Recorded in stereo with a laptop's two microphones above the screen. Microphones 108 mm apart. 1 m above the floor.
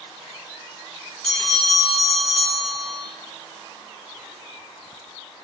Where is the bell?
5° left (ahead or behind), 0.6 m.